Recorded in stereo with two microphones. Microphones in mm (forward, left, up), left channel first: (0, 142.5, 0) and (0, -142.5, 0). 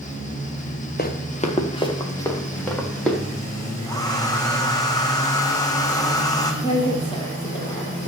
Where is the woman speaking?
20° left (ahead or behind), 3 m.